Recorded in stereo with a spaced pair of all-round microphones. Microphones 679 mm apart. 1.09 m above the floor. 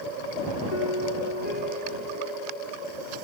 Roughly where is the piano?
Left.